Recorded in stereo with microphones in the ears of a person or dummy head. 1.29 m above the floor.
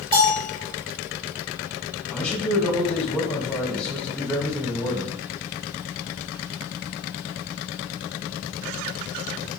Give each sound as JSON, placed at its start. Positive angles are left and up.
{"t": 0.1, "sound": "a bell", "side_deg": -30, "distance_m": 2.5}
{"t": 2.1, "sound": "a man speaking", "side_deg": 5, "distance_m": 2.5}